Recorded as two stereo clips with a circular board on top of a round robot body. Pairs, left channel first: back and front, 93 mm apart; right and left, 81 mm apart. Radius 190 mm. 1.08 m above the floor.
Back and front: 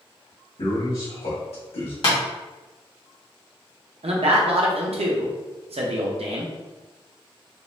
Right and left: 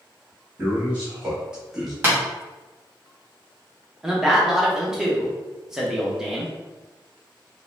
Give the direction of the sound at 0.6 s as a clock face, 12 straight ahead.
7 o'clock.